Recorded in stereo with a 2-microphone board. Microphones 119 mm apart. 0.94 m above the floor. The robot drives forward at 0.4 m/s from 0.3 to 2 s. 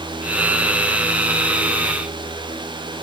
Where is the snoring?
No snoring in this recording.